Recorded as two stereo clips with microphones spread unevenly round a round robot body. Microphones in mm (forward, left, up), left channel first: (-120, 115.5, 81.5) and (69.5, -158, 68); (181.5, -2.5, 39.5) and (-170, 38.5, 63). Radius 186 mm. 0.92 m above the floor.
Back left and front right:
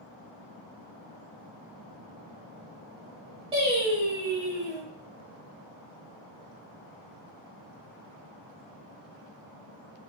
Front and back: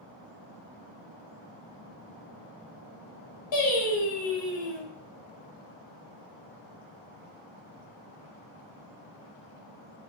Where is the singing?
20° left, 1.1 m.